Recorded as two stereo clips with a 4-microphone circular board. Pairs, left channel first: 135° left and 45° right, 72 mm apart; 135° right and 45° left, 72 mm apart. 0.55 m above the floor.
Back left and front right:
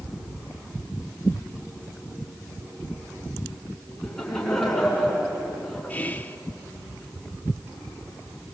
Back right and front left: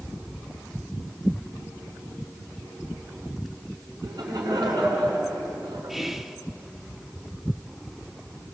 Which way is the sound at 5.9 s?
130° left.